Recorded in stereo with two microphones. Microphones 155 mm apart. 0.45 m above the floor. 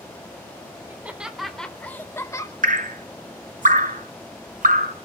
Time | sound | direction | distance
0.9 | laughter | 15° right (ahead or behind) | 1.2 m
2.6 | dripping | 60° right (ahead or behind) | 0.8 m